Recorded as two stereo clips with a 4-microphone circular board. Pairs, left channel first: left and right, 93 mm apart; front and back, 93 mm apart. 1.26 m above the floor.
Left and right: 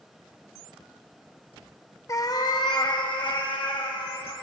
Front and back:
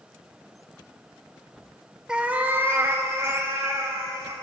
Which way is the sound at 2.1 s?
105° left.